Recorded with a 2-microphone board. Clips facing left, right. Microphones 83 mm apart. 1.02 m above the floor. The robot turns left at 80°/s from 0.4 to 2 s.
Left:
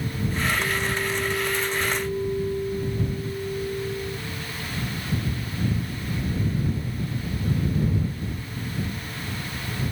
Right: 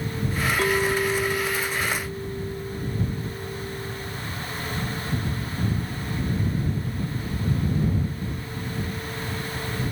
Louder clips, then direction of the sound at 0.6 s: Right 4 dB; 115° right.